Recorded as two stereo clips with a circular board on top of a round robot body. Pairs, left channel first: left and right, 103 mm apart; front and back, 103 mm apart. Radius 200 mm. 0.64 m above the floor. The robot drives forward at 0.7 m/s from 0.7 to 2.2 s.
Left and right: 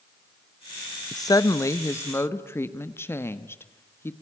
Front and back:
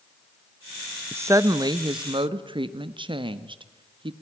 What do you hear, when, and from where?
1.1 s a woman speaking: 120° left, 1.0 m; by 4.1 s 155° left, 1.4 m